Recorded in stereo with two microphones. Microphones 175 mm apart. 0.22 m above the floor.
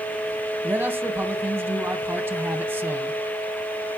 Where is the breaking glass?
I don't hear breaking glass.